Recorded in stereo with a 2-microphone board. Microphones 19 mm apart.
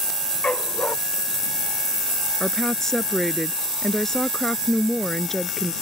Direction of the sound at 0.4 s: 85° left.